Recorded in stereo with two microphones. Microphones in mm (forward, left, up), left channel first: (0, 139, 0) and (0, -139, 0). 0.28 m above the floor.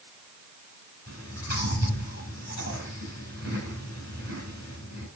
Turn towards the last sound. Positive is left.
turn(degrees=55)  # may be behind; listen again after turning